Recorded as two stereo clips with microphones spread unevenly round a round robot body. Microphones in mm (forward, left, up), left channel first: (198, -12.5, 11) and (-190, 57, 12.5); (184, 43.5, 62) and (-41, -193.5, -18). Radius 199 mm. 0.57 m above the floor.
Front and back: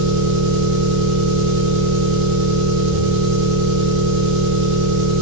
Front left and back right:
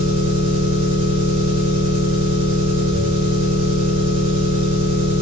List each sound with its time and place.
0.0 s an engine running: straight behind, 1.5 m